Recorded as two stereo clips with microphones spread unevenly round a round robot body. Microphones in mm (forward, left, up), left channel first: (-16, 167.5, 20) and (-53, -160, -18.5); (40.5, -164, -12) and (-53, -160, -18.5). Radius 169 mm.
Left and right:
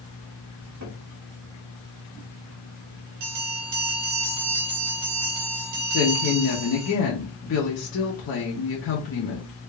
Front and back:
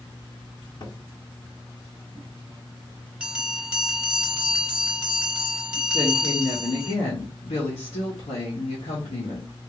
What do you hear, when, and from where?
0.8 s a cupboard door: 45° right, 1.6 m
3.2 s a bell: 105° right, 1.5 m
5.9 s a woman speaking: 30° left, 0.8 m